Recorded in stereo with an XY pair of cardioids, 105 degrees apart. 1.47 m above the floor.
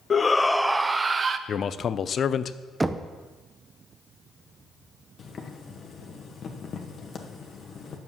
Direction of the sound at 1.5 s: 45° left.